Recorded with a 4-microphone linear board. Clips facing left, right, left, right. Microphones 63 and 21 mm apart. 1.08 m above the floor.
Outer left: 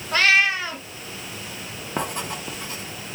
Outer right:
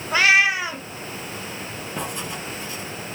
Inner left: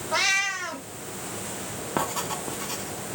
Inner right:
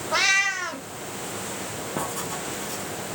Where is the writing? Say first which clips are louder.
Outer left 3 dB, inner left 3 dB; 50° left (ahead or behind), 1.0 m.